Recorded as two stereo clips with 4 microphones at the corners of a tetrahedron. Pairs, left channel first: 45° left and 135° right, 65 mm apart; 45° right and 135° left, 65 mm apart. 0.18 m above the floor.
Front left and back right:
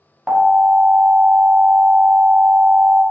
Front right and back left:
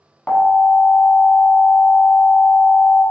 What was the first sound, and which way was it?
An alarm, 80° right.